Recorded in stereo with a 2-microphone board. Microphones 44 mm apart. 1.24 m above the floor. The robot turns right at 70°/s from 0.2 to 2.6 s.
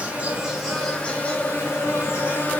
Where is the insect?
35° right, 3 m; by 2.6 s 135° left, 3 m.